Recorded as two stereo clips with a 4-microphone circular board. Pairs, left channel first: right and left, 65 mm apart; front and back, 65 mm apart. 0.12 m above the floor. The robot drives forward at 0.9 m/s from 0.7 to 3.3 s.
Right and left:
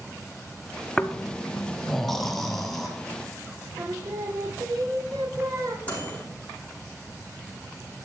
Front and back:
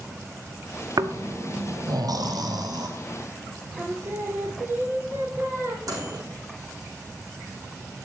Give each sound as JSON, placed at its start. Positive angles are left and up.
{"t": 1.0, "sound": "snoring", "azimuth_deg": -165, "distance_m": 0.7}
{"t": 3.8, "sound": "singing", "azimuth_deg": 125, "distance_m": 1.6}
{"t": 5.9, "sound": "a microwave", "azimuth_deg": -155, "distance_m": 6.0}